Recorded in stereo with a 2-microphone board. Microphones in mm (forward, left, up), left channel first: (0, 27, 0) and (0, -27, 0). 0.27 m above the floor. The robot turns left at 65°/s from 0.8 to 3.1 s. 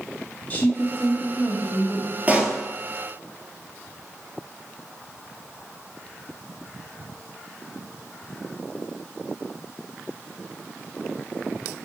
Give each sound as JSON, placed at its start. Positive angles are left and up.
{"t": 0.5, "sound": "a woman speaking", "azimuth_deg": 100, "distance_m": 1.1}
{"t": 2.3, "sound": "a pop", "side_deg": -30, "distance_m": 1.1}